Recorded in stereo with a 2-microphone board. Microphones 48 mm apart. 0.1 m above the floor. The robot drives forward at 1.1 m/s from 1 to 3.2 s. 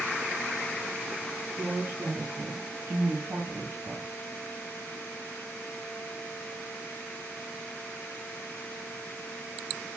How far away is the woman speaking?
About 3.5 m.